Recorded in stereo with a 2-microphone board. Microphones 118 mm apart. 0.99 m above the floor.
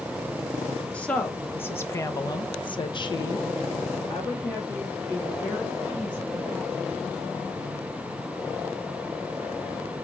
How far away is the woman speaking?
About 1.9 m.